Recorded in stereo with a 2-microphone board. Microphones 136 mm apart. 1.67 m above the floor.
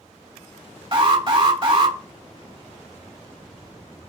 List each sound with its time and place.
0.9 s an alarm: 45° right (ahead or behind), 2.0 m